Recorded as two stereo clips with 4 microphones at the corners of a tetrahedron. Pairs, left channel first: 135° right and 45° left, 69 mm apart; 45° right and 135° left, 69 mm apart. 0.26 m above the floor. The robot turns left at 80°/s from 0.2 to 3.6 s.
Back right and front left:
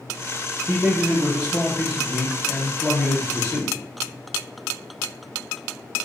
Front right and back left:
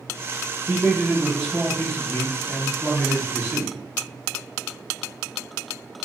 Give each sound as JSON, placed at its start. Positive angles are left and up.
{"t": 0.7, "sound": "a man speaking", "azimuth_deg": 90, "distance_m": 1.0}